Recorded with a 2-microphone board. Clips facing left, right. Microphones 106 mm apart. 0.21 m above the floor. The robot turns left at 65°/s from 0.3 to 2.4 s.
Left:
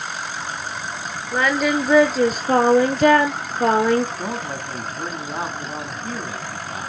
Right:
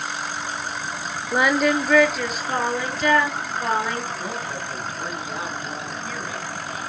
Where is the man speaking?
40° left (ahead or behind), 1.6 m.